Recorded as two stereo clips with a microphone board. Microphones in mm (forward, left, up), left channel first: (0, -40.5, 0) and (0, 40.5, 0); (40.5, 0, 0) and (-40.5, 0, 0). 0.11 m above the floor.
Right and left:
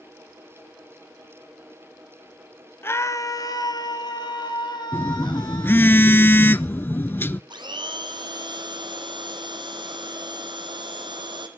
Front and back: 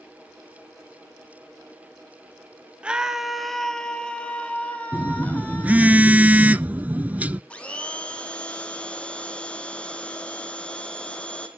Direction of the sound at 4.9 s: 125° right.